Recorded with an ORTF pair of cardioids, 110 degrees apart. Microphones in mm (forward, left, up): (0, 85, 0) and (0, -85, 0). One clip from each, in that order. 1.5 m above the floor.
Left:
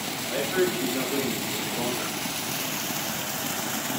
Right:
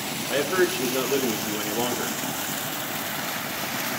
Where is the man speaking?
50° right, 2 m.